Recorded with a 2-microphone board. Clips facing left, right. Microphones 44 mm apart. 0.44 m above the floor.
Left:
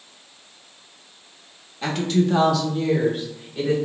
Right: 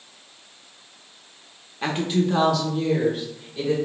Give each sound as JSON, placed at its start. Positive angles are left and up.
{"t": 1.8, "sound": "a woman speaking", "side_deg": -25, "distance_m": 0.9}